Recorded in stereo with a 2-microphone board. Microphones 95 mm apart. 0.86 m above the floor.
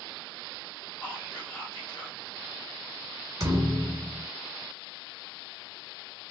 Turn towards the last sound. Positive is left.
turn(degrees=-40)  # may be behind; listen again after turning